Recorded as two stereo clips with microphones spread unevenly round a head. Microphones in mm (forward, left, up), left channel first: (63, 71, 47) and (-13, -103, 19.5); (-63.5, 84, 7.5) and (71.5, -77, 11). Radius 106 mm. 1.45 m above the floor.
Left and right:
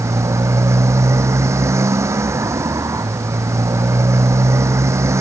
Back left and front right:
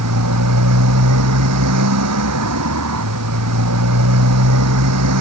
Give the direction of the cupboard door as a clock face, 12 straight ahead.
I don't hear a cupboard door.